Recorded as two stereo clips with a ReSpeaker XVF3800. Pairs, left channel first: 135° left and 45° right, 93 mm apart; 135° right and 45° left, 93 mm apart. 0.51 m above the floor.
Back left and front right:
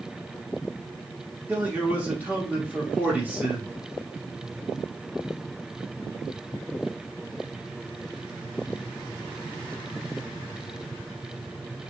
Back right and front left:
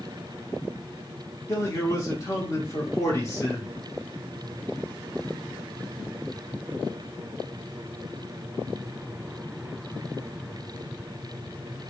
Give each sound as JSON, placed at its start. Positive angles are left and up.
{"t": 1.5, "sound": "a man speaking", "azimuth_deg": -105, "distance_m": 1.0}